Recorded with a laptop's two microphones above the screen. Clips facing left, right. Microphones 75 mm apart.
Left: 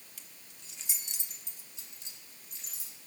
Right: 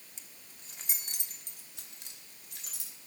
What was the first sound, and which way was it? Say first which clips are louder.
Keys jangling: even; 25° right (ahead or behind).